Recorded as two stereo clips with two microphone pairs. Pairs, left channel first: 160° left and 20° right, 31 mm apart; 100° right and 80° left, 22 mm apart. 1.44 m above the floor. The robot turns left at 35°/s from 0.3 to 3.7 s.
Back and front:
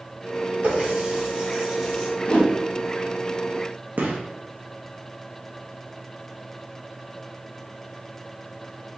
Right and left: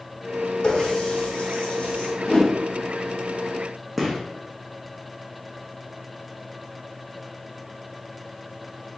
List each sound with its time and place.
0.6 s a running tap: 60° right, 1.1 m; by 2.1 s 110° right, 1.1 m
2.2 s a whoosh: 155° right, 0.8 m; by 2.5 s 160° right, 0.8 m
4.0 s a gunshot: 5° right, 0.9 m